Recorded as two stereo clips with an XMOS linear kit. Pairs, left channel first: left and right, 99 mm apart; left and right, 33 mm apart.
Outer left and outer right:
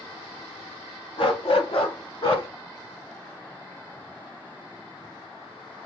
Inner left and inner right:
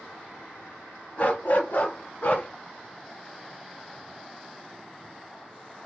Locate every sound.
1.2 s a dog barking: 60° left (ahead or behind), 0.9 m; by 2.5 s 65° left (ahead or behind), 1.4 m